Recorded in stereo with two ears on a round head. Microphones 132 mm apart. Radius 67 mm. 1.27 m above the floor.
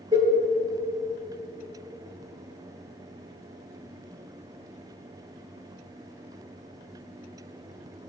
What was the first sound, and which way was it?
A cowbell, 30° right (ahead or behind).